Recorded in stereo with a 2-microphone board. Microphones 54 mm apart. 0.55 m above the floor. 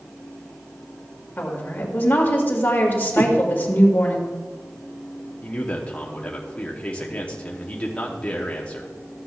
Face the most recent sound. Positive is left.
turn(degrees=25)  # may be behind; listen again after turning